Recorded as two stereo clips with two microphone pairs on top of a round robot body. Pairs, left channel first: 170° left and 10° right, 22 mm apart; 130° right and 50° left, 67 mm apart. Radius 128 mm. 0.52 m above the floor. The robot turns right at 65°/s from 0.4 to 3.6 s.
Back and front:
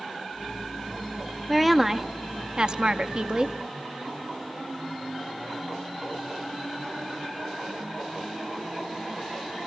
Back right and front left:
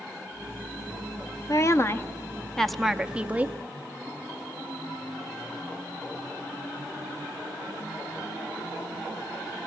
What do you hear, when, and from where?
1.5 s a woman speaking: 110° right, 0.8 m; by 3.5 s 25° left, 0.8 m